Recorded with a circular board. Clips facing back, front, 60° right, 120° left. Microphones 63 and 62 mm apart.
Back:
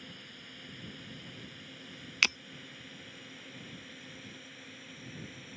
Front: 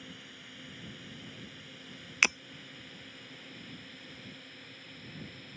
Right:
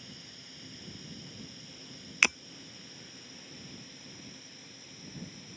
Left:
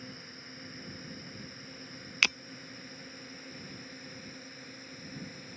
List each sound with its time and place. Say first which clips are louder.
0.0 s a drone: front 1 dB, left 4 dB; 85° left; by 5.6 s 95° left
2.2 s breaking glass: front 2 dB, right 2 dB; 25° right